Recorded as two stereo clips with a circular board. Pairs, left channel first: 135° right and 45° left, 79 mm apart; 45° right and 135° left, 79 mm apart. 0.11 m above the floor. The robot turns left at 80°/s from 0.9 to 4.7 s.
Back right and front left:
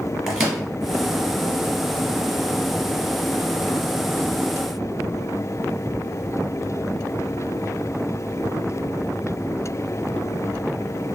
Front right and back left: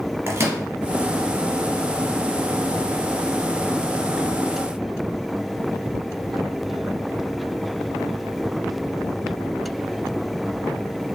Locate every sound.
0.3 s a microwave: 125° left, 1.3 m